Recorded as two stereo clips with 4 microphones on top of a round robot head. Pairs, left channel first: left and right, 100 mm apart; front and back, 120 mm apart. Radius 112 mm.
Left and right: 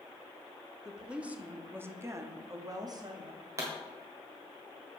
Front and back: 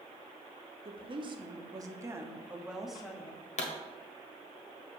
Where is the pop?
25° right, 1.7 m.